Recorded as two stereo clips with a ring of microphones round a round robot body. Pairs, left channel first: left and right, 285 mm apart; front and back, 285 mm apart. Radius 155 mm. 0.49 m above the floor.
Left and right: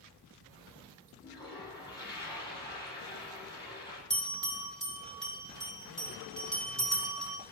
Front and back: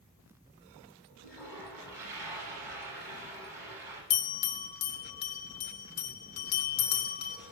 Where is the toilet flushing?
170° left, 5 m.